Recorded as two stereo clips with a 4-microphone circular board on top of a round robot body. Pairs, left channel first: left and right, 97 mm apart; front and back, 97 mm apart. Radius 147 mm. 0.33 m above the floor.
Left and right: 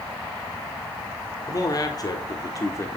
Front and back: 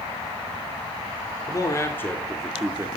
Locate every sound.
1.5 s a man speaking: 45° left, 2 m; by 2.9 s 135° left, 1.4 m